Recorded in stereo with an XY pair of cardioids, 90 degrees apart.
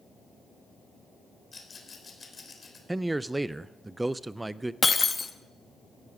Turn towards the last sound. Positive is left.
turn(degrees=35)